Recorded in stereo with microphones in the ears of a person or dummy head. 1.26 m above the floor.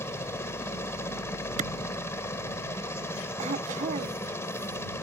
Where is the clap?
45° right (ahead or behind).